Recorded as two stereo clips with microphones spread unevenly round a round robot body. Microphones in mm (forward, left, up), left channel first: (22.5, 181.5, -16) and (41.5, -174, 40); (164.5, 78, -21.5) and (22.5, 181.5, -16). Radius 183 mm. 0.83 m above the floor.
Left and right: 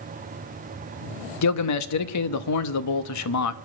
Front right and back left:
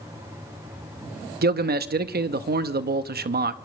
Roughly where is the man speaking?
Behind left.